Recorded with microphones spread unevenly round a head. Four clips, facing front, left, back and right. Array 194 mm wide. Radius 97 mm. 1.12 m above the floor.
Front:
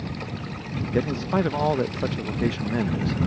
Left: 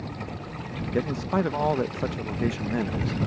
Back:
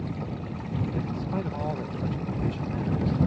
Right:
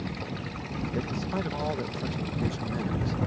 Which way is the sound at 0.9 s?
30° left.